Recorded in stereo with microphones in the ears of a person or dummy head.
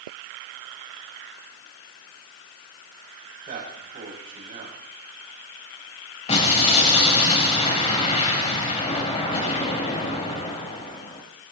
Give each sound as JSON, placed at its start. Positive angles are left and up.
{"t": 3.5, "sound": "a man speaking", "side_deg": -40, "distance_m": 8.0}
{"t": 6.3, "sound": "an explosion", "side_deg": 30, "distance_m": 3.0}